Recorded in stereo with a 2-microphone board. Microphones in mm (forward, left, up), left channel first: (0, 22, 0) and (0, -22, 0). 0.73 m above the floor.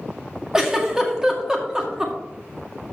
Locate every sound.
0.5 s a giggle: 10° right (ahead or behind), 1.6 m